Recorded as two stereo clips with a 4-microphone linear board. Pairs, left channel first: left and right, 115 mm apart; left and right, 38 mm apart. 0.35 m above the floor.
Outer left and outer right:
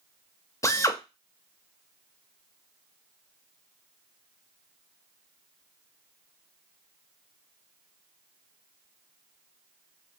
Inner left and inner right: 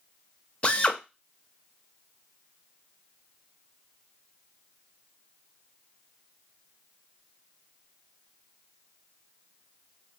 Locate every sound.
0.6 s a drill: 25° left (ahead or behind), 0.5 m